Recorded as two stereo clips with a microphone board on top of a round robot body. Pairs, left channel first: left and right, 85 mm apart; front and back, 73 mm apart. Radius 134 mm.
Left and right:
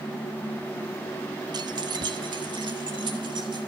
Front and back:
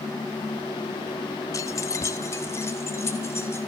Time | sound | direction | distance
1.5 | keys jangling | 45° right | 1.0 m